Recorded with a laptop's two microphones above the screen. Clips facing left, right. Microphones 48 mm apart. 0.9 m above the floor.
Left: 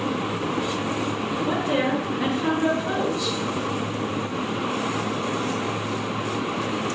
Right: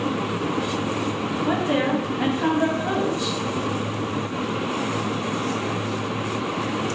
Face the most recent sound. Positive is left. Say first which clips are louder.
# right 2 dB
turn(degrees=-35)  # may be behind; listen again after turning